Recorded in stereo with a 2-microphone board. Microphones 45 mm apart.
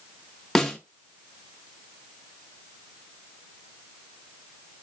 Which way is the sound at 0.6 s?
10° left (ahead or behind).